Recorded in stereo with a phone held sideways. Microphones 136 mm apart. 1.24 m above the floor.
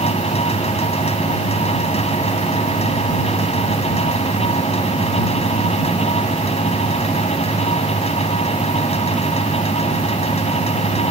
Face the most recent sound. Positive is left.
turn(degrees=50)  # may be behind; listen again after turning